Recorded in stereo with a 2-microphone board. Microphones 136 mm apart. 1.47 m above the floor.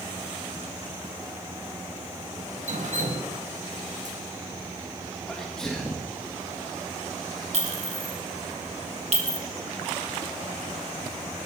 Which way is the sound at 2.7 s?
65° right (ahead or behind).